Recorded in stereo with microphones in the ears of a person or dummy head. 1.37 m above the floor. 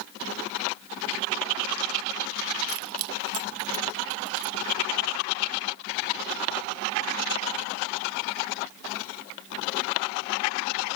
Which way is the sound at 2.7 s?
75° right (ahead or behind).